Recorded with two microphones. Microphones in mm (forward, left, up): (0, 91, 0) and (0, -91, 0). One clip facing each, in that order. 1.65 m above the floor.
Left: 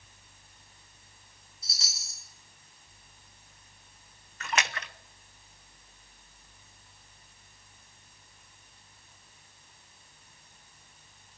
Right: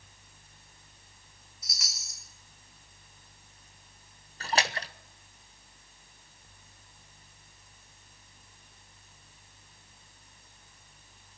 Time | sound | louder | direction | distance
1.6 | a chime | even | 30° left (ahead or behind) | 5.5 m
4.4 | a splash | right 2 dB | 35° right (ahead or behind) | 1.0 m